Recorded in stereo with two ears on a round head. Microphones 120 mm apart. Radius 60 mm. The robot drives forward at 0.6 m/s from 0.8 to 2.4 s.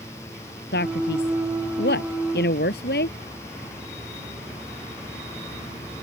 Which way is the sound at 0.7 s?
85° left.